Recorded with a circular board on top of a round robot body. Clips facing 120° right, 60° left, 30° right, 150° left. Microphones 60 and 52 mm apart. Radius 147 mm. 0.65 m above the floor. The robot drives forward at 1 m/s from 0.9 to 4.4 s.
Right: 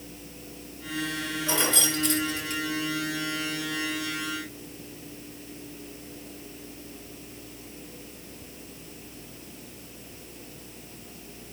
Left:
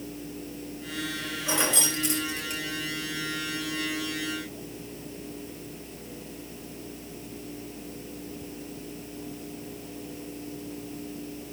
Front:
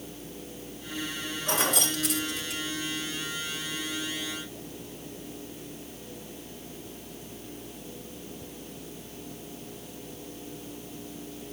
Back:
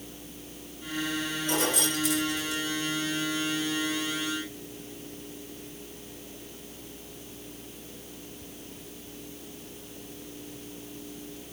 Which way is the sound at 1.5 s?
10° right.